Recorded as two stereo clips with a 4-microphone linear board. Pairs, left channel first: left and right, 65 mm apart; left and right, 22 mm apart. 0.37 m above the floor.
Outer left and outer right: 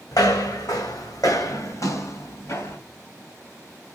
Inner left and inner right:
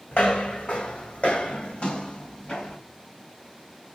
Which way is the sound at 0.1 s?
75° left (ahead or behind).